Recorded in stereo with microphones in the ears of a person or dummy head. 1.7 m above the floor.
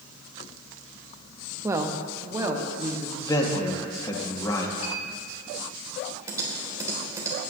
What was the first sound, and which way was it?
A woman speaking, 10° right (ahead or behind).